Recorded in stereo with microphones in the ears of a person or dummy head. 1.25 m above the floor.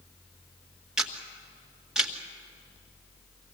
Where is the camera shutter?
Centre (ahead or behind), 1.8 m.